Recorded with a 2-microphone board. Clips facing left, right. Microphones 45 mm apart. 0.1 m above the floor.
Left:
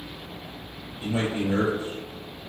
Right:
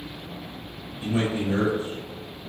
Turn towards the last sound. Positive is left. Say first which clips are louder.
# right 1 dB
turn(degrees=20)  # may be behind; listen again after turning